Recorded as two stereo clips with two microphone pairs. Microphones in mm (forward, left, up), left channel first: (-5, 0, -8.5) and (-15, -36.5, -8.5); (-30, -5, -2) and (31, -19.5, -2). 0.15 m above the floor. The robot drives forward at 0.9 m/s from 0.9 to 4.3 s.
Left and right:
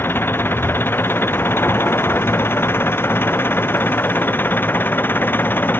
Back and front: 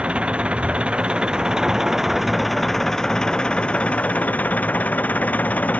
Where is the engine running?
60° left; by 5.8 s 100° left.